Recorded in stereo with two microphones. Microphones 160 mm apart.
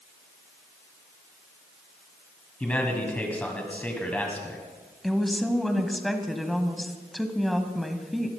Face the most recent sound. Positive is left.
turn(degrees=0)  # may be behind; listen again after turning